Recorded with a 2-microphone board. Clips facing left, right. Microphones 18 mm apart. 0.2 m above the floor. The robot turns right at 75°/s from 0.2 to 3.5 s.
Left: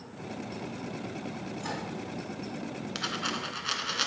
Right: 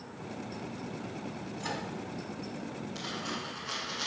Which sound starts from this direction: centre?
A microwave, at 1.6 s.